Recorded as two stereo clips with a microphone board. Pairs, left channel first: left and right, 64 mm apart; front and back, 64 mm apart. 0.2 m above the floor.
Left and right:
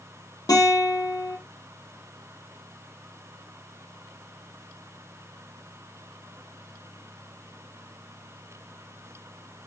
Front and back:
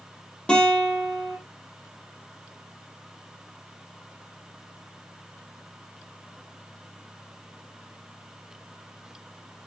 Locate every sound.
0.5 s a guitar: 70° left, 5.5 m